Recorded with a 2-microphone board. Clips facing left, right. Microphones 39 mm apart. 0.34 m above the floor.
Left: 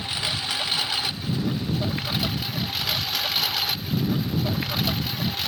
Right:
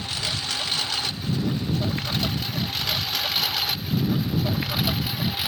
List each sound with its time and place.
0.0 s a lawn mower: 15° left (ahead or behind); by 5.5 s 15° right (ahead or behind)